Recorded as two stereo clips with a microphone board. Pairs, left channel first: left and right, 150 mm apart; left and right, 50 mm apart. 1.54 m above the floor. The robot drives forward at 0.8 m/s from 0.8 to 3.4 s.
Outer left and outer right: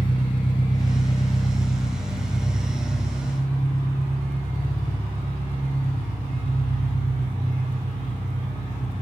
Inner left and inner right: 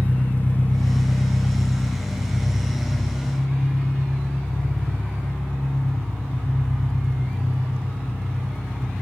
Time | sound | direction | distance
0.0 | an engine running | 35° left (ahead or behind) | 1.0 m